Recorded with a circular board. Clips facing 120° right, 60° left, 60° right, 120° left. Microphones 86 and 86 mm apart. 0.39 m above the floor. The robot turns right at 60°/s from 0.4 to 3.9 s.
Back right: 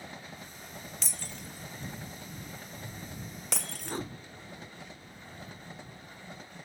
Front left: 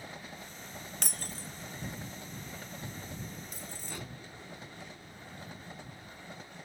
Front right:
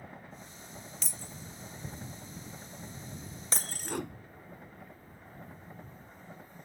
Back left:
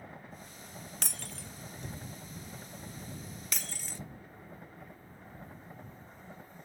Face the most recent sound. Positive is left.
turn(degrees=-65)